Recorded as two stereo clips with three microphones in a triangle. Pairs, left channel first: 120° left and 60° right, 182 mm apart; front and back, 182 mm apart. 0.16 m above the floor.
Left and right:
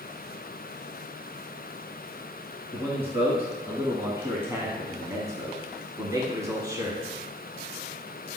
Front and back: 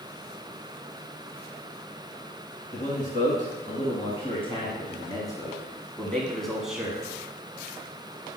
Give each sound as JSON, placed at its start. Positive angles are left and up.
{"t": 2.7, "sound": "a man speaking", "azimuth_deg": 15, "distance_m": 2.5}